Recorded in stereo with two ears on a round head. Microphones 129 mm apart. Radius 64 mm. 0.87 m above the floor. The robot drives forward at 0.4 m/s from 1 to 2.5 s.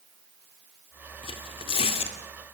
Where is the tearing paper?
35° left (ahead or behind), 2.5 m; by 2.2 s 40° left (ahead or behind), 2.5 m.